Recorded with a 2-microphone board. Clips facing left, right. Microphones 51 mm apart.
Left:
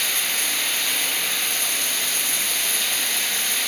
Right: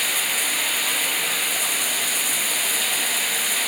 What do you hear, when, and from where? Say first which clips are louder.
0.0 s running water: right 1 dB; 5° right (ahead or behind), 1.0 m